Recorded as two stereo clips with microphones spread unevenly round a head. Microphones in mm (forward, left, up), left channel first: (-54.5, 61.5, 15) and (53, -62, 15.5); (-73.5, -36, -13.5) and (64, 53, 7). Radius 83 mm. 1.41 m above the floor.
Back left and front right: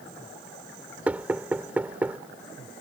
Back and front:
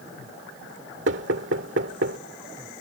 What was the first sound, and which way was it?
Knocking, 35° left.